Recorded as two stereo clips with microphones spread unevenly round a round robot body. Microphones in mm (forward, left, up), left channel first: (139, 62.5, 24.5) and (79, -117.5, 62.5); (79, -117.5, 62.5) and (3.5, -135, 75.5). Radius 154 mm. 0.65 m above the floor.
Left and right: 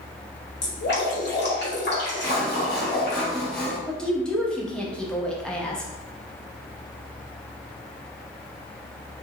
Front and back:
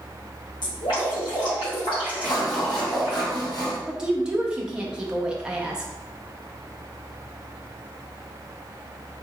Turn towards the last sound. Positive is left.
turn(degrees=105)